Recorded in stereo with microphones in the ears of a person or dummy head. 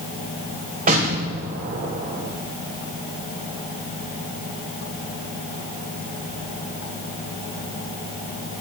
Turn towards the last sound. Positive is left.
turn(degrees=-40)  # may be behind; listen again after turning